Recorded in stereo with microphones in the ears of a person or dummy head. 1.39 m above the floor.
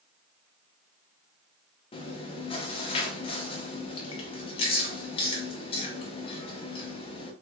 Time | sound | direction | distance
1.9 | chewing | 30° left (ahead or behind) | 0.5 m